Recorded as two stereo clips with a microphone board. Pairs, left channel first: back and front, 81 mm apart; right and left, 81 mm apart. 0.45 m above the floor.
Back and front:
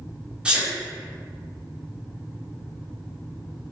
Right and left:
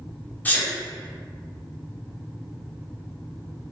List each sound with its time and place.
0.5 s a sneeze: 60° right, 0.7 m